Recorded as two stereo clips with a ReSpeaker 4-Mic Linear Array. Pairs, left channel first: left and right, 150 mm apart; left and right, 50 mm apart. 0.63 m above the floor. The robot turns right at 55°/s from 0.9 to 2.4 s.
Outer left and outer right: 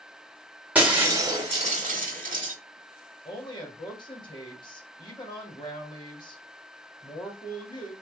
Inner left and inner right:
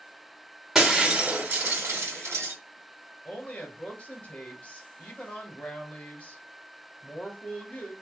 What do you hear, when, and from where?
0.8 s breaking glass: 170° right, 1.2 m; by 2.5 s 85° right, 1.2 m
3.2 s a woman speaking: 30° left (ahead or behind), 1.3 m